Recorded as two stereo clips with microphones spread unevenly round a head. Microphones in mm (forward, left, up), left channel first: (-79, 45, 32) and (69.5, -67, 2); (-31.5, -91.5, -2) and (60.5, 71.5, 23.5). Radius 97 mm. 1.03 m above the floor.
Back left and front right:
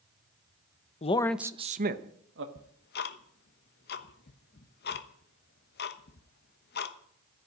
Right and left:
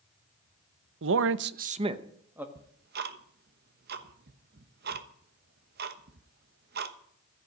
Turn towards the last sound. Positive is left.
turn(degrees=105)